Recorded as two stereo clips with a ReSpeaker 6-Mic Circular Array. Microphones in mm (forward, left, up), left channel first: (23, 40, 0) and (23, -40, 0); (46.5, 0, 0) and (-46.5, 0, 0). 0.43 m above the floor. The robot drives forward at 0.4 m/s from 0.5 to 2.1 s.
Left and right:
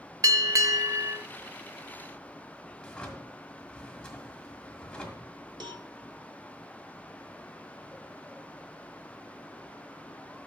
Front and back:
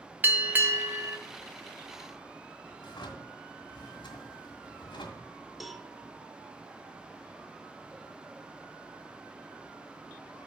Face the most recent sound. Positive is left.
turn(degrees=-90)